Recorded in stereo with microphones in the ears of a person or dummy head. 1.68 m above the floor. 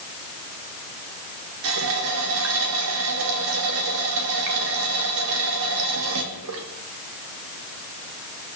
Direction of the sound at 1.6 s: 70° right (ahead or behind).